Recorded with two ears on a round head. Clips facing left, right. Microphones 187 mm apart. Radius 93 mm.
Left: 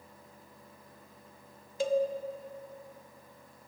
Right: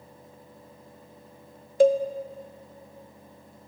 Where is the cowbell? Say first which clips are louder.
Right 10 dB; 45° right (ahead or behind), 0.5 m.